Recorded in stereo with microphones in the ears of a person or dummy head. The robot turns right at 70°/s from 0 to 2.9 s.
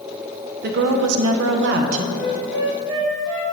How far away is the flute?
About 0.9 m.